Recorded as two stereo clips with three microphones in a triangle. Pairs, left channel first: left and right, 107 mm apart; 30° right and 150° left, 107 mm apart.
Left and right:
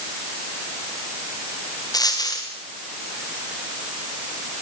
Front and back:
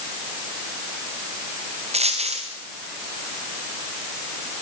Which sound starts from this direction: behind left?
A dropped coin, at 1.9 s.